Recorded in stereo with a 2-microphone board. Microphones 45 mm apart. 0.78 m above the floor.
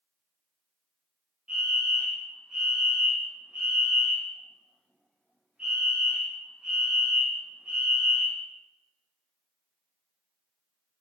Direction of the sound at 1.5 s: 25° right (ahead or behind).